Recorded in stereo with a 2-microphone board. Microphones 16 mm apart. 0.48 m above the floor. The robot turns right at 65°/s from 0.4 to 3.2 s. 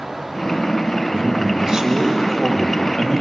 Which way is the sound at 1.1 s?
90° right.